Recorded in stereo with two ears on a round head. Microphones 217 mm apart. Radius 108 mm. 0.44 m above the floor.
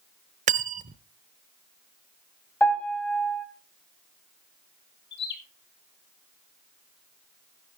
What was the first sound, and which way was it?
Cutlery clinking, 30° right (ahead or behind).